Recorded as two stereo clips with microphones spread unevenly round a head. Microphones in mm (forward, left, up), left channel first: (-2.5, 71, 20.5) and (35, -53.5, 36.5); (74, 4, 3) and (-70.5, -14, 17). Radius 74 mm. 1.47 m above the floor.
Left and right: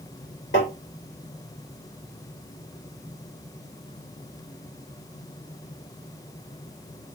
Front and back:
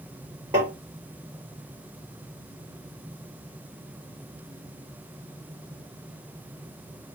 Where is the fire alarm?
No fire alarm in this recording.